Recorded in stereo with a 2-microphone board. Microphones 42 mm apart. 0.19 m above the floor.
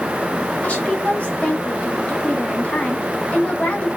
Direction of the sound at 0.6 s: 30° left (ahead or behind).